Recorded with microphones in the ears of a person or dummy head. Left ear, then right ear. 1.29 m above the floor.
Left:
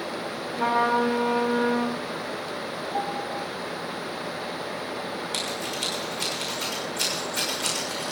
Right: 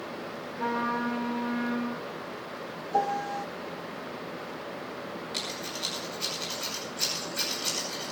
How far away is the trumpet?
About 4 m.